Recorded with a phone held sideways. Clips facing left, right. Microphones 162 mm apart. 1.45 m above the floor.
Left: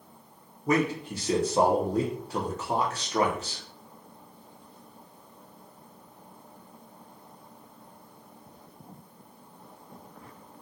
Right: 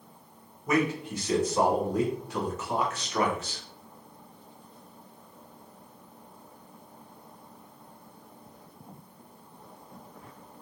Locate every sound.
0.7 s a man speaking: 30° left (ahead or behind), 0.9 m